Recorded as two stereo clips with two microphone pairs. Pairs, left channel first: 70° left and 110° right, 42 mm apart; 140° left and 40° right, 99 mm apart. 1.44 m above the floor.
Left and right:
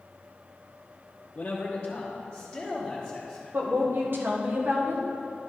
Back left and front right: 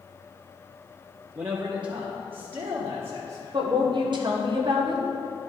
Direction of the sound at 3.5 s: 75° right.